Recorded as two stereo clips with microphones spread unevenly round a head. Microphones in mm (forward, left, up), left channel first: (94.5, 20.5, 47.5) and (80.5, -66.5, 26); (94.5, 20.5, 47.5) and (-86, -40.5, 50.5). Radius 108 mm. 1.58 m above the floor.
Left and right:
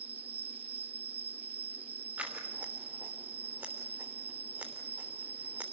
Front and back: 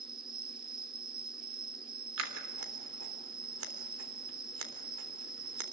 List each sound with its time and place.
0.0 s an insect: 95° right, 1.1 m
2.2 s scissors: 175° left, 3 m